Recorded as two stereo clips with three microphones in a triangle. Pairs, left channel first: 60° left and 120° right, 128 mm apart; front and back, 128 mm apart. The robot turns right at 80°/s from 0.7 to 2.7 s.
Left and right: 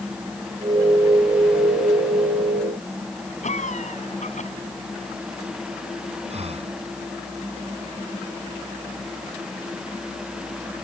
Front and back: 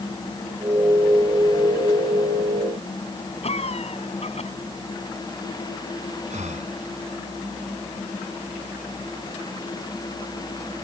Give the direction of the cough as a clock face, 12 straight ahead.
11 o'clock.